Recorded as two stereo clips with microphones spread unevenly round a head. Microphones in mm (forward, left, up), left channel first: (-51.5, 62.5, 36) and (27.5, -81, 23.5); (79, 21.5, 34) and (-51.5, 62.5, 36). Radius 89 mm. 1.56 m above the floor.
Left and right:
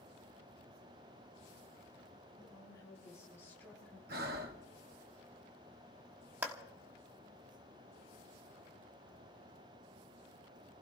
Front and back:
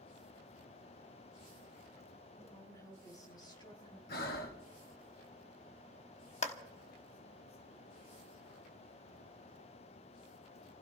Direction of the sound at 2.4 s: 55° left.